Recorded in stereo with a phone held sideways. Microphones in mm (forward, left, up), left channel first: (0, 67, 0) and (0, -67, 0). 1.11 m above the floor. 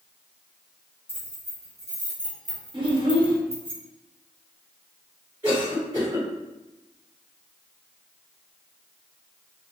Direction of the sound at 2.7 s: 40° right (ahead or behind).